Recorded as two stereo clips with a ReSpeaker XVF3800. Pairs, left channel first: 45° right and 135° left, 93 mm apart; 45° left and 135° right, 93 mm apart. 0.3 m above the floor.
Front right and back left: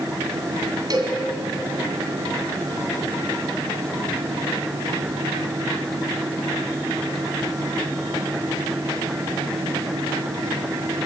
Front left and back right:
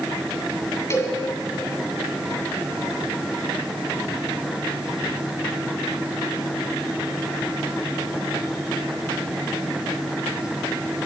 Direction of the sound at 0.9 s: 100° left.